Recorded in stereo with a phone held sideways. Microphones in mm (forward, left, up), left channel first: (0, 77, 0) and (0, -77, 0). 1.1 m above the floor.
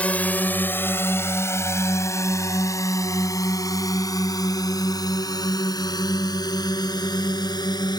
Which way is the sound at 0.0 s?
10° left (ahead or behind).